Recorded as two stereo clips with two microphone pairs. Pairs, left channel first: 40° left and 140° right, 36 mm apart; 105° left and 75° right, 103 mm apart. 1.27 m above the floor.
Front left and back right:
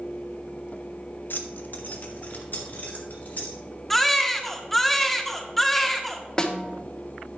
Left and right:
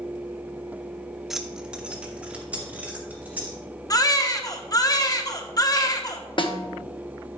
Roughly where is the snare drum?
Left.